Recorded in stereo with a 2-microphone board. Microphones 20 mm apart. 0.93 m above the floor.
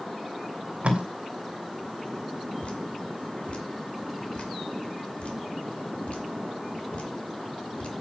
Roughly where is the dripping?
Left.